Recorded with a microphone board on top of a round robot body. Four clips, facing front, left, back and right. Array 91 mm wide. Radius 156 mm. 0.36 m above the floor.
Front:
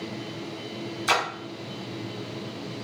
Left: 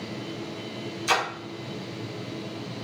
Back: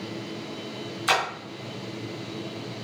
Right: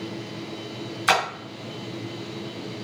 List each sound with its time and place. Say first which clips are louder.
1.1 s a splash: right 4 dB, even; 95° right, 1.2 m